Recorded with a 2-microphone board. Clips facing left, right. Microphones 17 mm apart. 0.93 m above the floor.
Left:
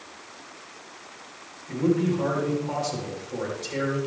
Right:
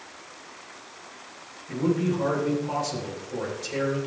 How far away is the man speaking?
About 3.5 m.